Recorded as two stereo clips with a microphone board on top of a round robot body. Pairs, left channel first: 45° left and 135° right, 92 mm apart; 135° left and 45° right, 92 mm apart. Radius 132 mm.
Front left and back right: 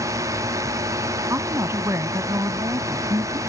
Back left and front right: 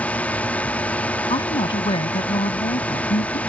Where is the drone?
160° right.